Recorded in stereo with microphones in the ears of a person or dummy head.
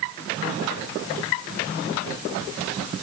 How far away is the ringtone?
No ringtone in this recording.